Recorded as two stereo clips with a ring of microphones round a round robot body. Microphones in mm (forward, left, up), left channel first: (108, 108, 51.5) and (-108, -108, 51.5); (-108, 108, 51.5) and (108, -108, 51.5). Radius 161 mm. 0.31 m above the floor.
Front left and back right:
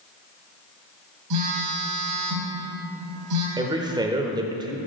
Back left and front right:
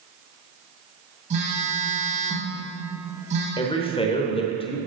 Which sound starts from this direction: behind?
A man speaking, at 3.6 s.